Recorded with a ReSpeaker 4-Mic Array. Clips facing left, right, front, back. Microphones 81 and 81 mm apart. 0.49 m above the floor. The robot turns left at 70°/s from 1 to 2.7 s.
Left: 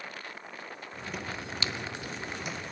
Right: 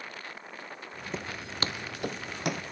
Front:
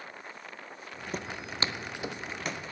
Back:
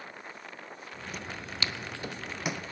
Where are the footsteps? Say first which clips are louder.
Right 1 dB, front 4 dB; 30° right, 0.7 m; by 2.6 s 110° right, 1.5 m.